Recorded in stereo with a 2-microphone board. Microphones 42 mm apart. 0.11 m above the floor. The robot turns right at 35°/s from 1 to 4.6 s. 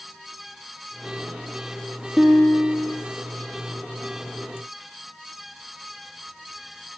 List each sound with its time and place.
2.2 s a guitar: straight behind, 2 m; by 3.0 s 150° right, 2 m